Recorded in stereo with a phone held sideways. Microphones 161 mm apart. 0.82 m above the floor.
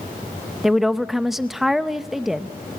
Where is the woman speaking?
Centre (ahead or behind), 0.6 m.